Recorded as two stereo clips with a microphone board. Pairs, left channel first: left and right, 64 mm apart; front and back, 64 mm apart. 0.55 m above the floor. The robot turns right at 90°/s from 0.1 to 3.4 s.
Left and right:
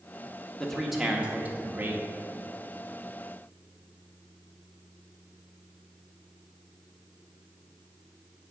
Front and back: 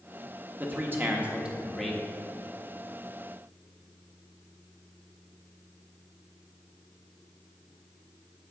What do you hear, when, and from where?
0.6 s a man speaking: 160° left, 1.0 m; by 2.0 s 75° right, 1.0 m